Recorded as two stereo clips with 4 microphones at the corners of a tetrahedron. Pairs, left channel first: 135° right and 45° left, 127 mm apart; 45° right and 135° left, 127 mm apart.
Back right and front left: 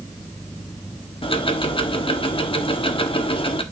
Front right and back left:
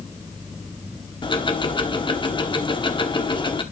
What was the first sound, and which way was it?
Ticking, 90° right.